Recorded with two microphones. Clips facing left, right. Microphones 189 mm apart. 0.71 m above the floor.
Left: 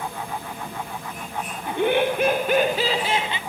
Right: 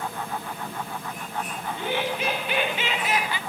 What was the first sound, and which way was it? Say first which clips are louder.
Laughter: left 9 dB; 60° left (ahead or behind).